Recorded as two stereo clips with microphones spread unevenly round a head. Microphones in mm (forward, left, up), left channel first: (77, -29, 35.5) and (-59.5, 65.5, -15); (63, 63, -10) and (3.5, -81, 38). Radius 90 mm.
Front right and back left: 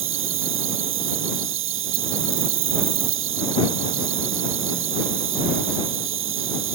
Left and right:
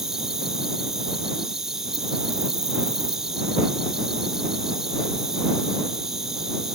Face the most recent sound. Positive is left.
turn(degrees=165)